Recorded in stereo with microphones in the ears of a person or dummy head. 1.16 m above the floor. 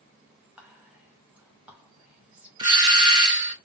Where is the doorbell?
20° right (ahead or behind), 1.4 m.